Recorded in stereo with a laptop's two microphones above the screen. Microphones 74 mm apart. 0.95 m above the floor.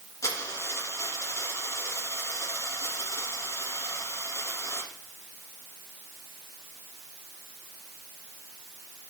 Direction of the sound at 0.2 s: 45° left (ahead or behind).